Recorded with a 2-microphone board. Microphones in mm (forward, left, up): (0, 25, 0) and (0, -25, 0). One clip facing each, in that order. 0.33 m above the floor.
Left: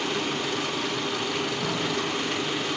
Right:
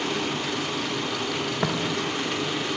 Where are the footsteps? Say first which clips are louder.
Right 3 dB; 85° right, 4 m.